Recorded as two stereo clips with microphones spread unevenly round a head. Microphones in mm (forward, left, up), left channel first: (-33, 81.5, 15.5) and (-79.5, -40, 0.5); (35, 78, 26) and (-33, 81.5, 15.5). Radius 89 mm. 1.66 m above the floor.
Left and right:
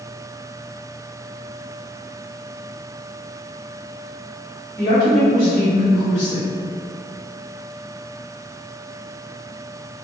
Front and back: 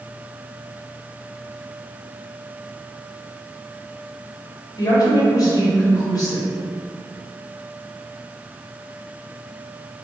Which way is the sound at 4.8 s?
20° left.